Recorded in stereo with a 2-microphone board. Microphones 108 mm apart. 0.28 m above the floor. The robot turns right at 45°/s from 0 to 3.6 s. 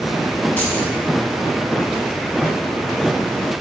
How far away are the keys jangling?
About 1.7 m.